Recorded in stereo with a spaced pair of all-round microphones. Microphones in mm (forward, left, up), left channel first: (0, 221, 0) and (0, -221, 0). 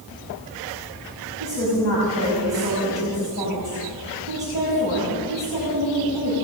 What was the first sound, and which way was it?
A woman speaking, 25° right (ahead or behind).